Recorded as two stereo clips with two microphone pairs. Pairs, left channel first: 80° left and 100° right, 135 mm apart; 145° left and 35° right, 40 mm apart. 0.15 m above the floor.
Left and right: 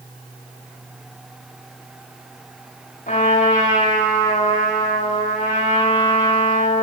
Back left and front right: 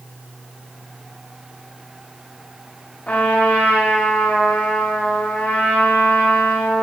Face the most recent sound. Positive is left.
turn(degrees=90)